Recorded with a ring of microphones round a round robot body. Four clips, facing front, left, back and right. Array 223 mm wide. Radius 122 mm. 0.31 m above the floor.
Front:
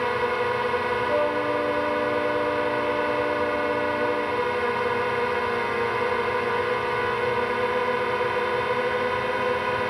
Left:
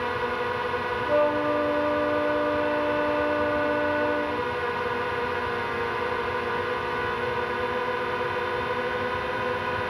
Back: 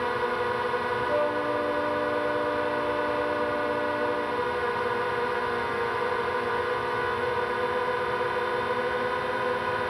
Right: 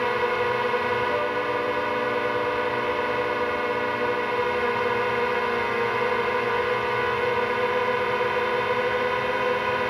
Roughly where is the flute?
Left.